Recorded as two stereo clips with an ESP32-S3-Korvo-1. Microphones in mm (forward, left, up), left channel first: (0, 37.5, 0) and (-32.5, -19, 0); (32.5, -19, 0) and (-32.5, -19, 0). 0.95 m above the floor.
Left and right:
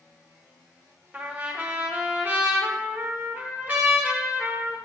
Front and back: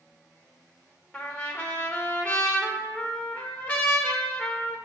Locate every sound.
1.1 s a trumpet: 60° right, 1.2 m